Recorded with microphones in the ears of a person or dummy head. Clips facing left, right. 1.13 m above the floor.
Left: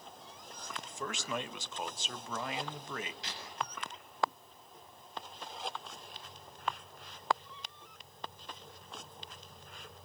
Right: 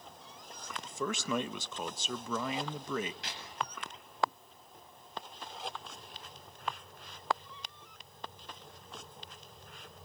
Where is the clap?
50° right (ahead or behind), 7.5 m.